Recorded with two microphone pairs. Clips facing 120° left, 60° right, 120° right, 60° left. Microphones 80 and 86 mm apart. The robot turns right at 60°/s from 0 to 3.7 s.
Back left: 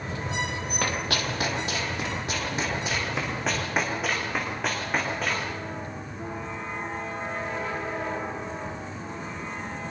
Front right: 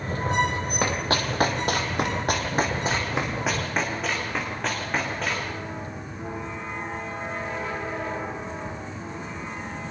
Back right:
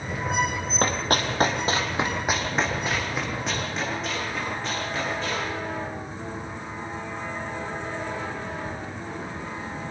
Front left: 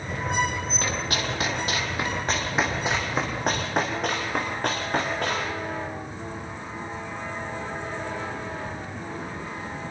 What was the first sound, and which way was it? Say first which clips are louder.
Running footsteps: front right 3 dB, back right 6 dB; 120° right.